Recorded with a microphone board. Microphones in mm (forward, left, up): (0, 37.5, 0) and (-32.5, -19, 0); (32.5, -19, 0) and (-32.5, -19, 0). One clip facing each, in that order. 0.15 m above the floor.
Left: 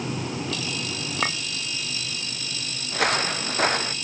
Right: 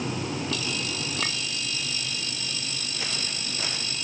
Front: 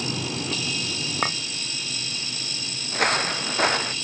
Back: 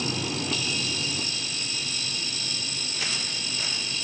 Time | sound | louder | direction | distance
1.2 | a clink | left 9 dB, front 11 dB | 5° left | ?
2.9 | footsteps | left 15 dB, front 14 dB | 35° left | ?